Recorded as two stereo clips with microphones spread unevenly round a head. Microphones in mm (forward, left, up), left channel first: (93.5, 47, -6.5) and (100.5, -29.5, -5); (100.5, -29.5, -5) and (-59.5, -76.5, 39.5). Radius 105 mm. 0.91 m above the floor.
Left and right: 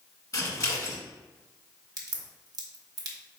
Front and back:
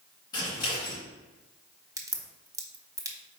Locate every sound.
0.3 s scissors: 65° left, 1.3 m
2.0 s a crack: 85° right, 0.9 m